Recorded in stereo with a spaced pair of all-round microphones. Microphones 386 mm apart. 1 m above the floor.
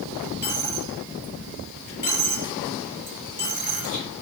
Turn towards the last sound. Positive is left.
turn(degrees=50)  # may be behind; listen again after turning